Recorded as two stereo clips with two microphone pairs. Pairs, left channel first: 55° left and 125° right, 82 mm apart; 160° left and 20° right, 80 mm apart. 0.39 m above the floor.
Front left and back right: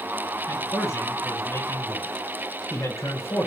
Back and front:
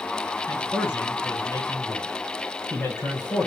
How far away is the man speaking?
About 1.8 m.